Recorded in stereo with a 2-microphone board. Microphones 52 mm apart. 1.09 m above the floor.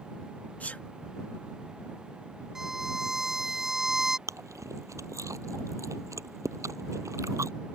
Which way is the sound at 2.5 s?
5° right (ahead or behind).